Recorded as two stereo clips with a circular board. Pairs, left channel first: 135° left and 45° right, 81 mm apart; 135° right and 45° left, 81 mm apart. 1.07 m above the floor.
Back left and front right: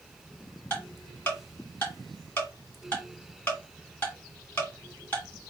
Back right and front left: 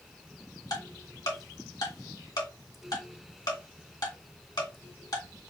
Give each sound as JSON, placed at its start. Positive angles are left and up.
{"t": 0.7, "sound": "ticking", "azimuth_deg": -160, "distance_m": 2.0}